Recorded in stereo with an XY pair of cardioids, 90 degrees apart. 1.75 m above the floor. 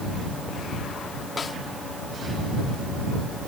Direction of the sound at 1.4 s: 40° left.